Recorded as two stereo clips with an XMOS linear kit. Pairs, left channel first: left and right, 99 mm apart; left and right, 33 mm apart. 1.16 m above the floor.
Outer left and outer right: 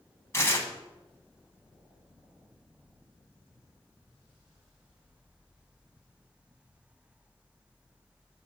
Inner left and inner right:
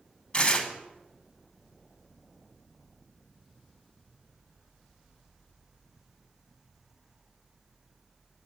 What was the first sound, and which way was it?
Tearing paper, 25° left (ahead or behind).